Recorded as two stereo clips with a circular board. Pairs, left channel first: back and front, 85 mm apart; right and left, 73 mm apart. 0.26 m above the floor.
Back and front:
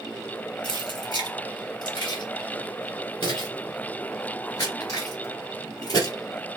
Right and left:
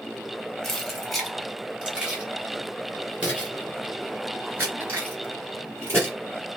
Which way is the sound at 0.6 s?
175° right.